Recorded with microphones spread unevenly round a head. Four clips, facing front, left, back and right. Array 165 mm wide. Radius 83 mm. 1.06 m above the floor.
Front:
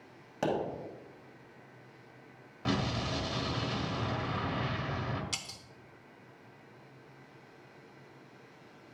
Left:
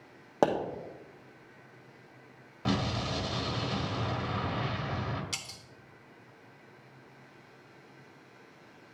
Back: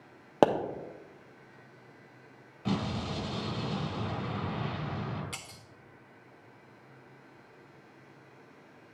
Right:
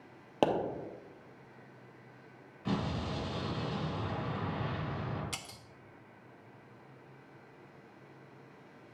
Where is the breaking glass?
100° right, 0.7 m.